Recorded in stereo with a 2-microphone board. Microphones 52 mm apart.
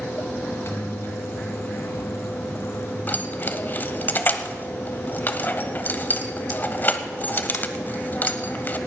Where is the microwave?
55° left (ahead or behind), 1.6 m.